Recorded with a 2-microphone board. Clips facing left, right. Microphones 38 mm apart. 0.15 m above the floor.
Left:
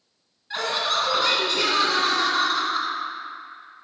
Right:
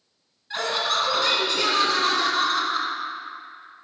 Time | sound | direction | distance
0.5 | laughter | 5° left (ahead or behind) | 1.2 m